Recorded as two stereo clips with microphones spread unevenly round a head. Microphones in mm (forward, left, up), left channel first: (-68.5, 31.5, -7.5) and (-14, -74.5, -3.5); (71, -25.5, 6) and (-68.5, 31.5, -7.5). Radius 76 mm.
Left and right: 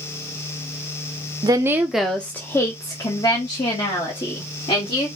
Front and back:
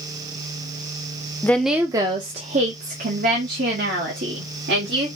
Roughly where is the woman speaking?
Right.